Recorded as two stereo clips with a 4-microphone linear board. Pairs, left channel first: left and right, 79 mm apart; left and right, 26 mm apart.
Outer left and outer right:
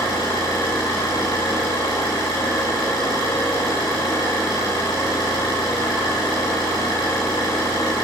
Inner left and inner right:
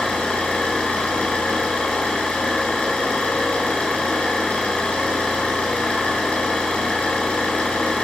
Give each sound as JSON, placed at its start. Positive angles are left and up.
{"t": 0.0, "sound": "an engine running", "side_deg": 75, "distance_m": 9.0}